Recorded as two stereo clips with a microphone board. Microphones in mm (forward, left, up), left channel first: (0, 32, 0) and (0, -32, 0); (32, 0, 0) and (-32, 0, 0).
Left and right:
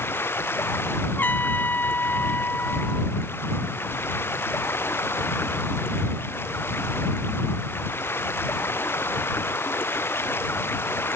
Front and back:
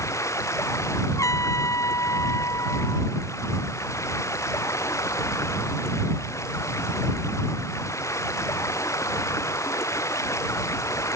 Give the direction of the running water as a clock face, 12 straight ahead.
11 o'clock.